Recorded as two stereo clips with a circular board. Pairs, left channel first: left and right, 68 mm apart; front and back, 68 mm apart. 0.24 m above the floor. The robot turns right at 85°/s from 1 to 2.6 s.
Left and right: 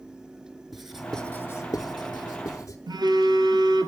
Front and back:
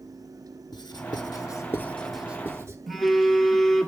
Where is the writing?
5° right, 0.8 m; by 2.8 s 130° left, 0.8 m.